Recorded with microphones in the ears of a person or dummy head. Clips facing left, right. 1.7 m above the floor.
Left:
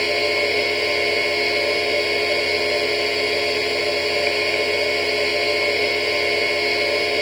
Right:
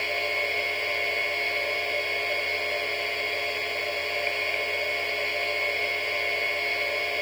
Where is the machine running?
65° left (ahead or behind).